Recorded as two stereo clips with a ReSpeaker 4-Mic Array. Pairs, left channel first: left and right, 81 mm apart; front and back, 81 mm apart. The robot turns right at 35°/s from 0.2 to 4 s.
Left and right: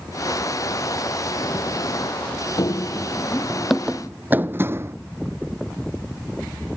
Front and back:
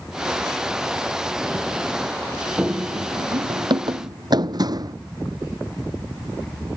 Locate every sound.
2.6 s running footsteps: 105° left; by 5.0 s 145° right